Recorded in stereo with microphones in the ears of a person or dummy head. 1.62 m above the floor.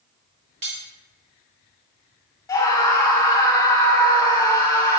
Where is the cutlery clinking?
35° right (ahead or behind), 0.9 m.